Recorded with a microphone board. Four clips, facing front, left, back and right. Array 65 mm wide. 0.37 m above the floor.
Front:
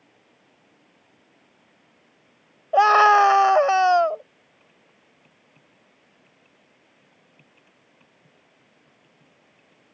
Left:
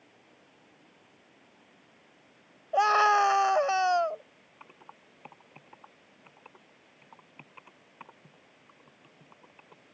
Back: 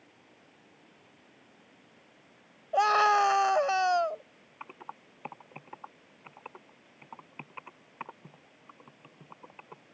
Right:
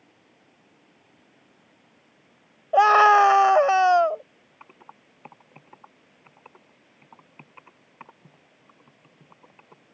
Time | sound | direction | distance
2.7 | a scream | 40° right | ?
4.6 | typing on a keyboard | 170° right | ?